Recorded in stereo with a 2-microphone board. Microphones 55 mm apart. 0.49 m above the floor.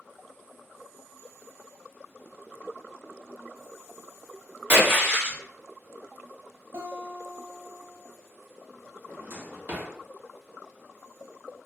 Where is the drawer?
40° right (ahead or behind), 0.5 m.